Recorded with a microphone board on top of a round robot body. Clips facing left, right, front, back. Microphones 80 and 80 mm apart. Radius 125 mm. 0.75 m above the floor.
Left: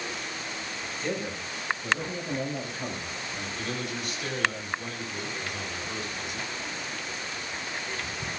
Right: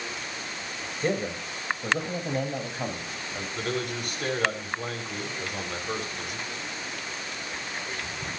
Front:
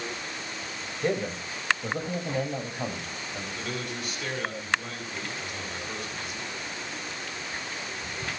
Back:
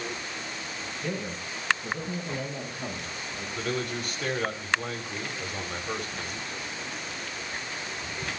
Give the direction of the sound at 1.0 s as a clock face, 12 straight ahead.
1 o'clock.